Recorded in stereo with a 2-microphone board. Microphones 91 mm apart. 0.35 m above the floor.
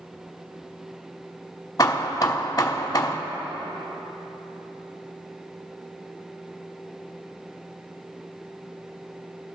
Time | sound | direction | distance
1.8 | hammering | 40° left (ahead or behind) | 0.6 m